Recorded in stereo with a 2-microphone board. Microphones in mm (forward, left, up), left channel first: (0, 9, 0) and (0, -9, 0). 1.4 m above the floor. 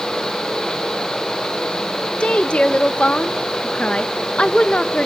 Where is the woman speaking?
80° left, 1.1 m.